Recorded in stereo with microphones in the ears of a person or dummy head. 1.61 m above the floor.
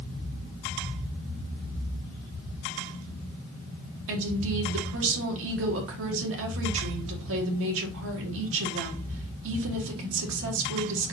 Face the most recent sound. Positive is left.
turn(degrees=-75)  # may be behind; listen again after turning